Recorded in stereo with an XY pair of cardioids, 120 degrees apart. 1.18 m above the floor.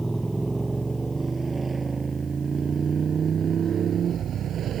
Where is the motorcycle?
10° right; by 4.8 s 55° right.